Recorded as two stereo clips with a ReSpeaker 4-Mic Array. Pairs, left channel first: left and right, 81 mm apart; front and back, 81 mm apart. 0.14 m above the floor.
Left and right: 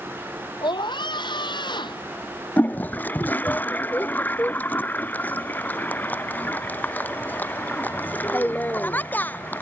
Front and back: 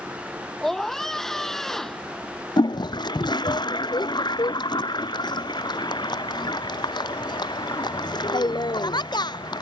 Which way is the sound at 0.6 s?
85° left.